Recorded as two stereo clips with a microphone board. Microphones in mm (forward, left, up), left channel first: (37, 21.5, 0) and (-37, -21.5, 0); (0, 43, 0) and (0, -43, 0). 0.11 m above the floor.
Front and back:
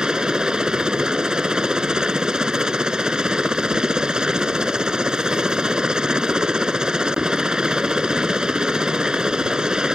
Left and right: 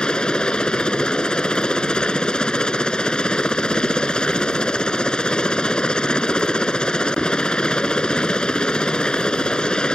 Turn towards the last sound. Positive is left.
turn(degrees=150)